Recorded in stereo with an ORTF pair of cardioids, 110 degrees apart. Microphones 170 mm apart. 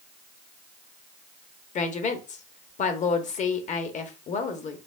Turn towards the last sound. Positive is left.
turn(degrees=45)